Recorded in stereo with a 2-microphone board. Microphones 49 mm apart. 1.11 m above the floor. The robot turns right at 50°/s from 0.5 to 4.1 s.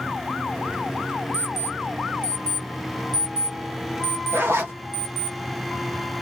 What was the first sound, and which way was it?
An alarm clock, 75° left (ahead or behind).